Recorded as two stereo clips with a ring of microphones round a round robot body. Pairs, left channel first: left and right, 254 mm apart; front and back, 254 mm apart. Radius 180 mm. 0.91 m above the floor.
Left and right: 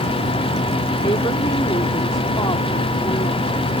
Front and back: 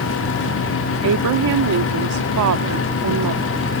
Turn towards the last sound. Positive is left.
turn(degrees=165)